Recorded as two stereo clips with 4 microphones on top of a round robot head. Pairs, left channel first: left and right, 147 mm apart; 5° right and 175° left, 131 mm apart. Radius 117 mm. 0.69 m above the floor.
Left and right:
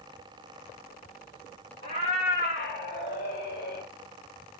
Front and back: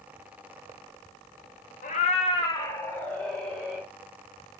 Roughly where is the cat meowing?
Ahead.